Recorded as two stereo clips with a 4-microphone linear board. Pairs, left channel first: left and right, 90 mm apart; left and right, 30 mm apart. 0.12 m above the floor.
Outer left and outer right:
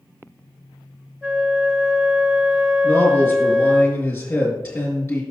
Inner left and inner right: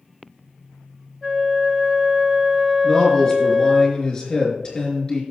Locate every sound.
1.2 s a flute: centre (ahead or behind), 1.1 m
2.8 s a man speaking: 30° left (ahead or behind), 4.5 m